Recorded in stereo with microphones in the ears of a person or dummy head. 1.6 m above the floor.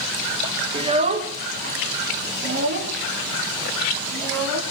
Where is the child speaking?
25° right (ahead or behind), 1.5 m; by 4.6 s 55° right (ahead or behind), 4 m.